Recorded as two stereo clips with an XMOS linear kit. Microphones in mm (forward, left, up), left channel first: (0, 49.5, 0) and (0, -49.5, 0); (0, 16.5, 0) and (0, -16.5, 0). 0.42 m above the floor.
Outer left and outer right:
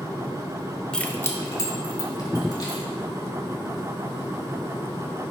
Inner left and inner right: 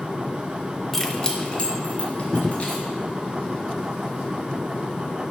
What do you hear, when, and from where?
0.9 s keys jangling: 10° left (ahead or behind), 0.6 m; by 2.8 s 45° left (ahead or behind), 2.5 m